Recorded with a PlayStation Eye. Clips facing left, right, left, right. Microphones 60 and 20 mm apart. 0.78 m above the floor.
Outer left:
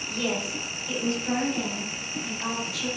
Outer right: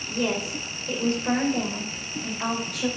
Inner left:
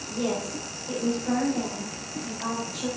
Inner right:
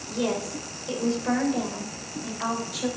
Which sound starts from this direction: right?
A woman speaking, at 0.1 s.